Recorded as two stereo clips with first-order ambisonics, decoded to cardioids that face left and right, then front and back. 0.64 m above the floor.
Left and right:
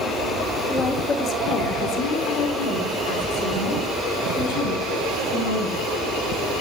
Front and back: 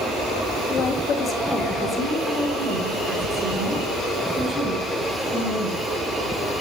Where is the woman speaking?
10° left, 1.3 m; by 5.8 s 100° left, 6.5 m.